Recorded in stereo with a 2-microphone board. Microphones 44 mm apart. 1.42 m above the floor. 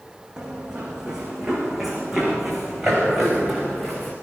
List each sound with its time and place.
0.4 s running footsteps: 20° right (ahead or behind), 6 m; by 4.1 s 5° left (ahead or behind), 7.5 m